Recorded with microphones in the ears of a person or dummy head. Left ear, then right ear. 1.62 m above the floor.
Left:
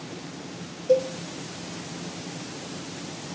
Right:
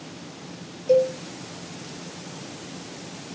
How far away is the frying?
No frying in this recording.